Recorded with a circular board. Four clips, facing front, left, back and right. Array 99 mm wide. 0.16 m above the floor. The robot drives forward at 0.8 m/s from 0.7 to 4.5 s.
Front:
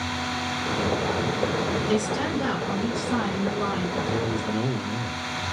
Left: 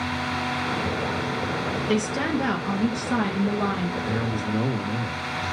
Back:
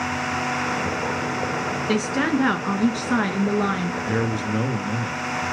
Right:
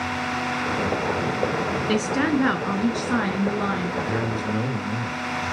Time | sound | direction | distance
1.9 | a woman speaking | 135° right | 2 m
4.1 | a man speaking | 170° right | 2.5 m